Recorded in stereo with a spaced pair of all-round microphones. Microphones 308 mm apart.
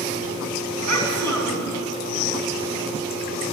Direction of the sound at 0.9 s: 65° right (ahead or behind).